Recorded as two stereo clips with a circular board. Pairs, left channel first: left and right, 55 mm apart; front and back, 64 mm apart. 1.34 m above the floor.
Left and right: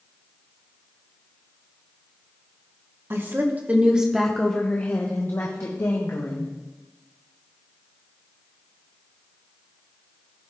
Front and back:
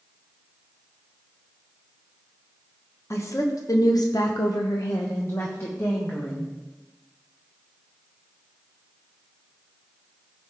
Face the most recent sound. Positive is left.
turn(degrees=65)